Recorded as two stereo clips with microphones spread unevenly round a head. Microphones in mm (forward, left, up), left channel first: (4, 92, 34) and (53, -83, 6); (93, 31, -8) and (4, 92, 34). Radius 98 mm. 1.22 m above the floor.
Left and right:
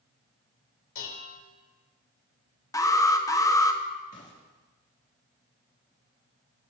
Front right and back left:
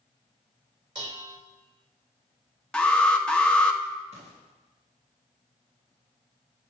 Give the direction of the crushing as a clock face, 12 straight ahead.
No crushing in this recording.